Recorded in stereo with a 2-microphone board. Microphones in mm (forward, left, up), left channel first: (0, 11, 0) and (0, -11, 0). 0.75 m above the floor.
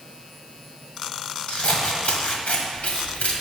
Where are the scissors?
80° left, 1.4 m.